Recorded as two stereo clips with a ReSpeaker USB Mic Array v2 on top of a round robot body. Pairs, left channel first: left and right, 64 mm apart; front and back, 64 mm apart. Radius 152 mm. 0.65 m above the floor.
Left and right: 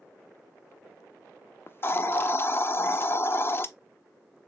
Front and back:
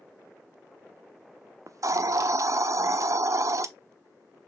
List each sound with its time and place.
1.7 s a hiss: 145° left, 0.6 m